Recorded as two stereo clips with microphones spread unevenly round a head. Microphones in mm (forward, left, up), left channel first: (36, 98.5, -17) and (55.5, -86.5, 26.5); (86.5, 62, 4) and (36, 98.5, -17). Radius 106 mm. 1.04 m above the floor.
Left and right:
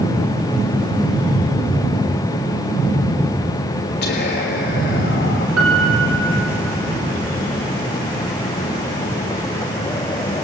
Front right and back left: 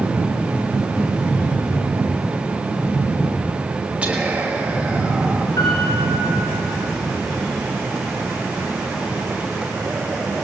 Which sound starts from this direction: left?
Whispering, at 4.0 s.